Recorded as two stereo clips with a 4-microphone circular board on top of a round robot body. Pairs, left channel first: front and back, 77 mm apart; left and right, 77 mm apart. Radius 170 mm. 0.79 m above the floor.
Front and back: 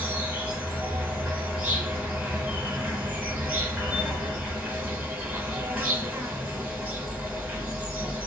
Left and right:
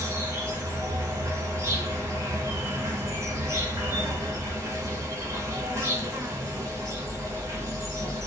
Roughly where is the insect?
Behind right.